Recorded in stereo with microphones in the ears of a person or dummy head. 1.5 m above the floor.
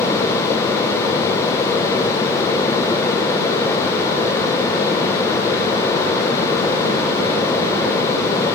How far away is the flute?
I don't hear a flute.